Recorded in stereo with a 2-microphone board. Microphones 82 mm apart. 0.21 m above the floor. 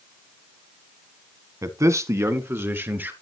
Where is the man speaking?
40° right (ahead or behind), 1.6 m; by 3.1 s 25° right (ahead or behind), 3 m.